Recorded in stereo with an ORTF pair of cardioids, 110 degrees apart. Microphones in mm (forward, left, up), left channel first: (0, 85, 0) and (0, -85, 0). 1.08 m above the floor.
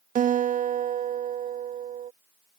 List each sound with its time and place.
0.1 s a guitar: 55° right